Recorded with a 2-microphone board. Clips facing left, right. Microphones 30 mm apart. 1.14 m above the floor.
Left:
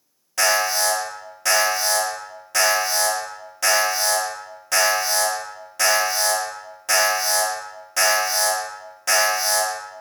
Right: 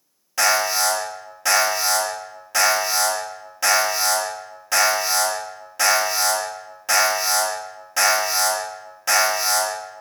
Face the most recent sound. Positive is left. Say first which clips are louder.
# even
turn(degrees=-10)  # may be behind; listen again after turning